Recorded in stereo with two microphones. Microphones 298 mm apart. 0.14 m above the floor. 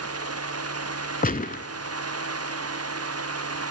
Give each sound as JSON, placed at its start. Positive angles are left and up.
{"t": 1.2, "sound": "a gunshot", "side_deg": 30, "distance_m": 0.7}